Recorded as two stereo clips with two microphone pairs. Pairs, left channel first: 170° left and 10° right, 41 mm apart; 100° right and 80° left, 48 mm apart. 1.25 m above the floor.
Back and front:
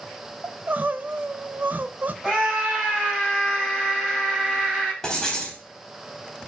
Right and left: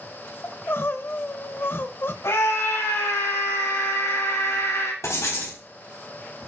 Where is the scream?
85° right, 5.5 m.